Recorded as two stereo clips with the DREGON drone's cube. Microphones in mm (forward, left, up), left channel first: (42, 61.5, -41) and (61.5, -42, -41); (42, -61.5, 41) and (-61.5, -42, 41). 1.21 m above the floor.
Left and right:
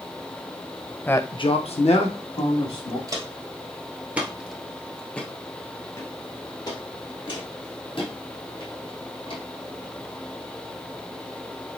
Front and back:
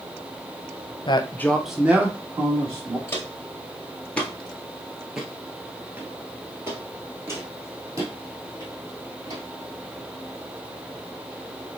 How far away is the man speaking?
About 0.6 m.